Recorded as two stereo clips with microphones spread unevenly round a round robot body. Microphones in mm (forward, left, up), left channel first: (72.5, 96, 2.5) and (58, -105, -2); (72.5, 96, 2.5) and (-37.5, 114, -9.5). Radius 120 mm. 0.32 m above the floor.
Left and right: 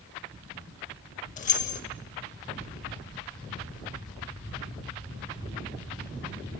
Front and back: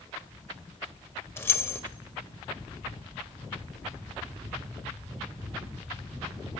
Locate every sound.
1.4 s keys jangling: 60° left, 0.7 m